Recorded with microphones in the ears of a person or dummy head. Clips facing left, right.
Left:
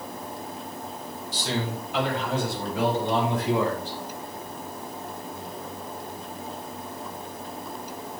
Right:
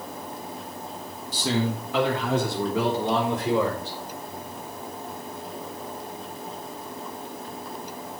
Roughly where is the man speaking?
Right.